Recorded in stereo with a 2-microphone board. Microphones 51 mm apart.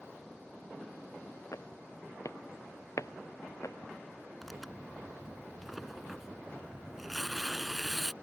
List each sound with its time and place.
1.5 s footsteps: 75° left (ahead or behind); by 3.9 s 70° left (ahead or behind)
4.4 s tearing paper: 5° right (ahead or behind)